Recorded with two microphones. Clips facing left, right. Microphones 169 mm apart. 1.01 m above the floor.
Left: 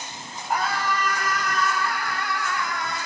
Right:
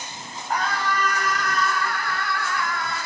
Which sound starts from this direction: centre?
A scream, at 0.5 s.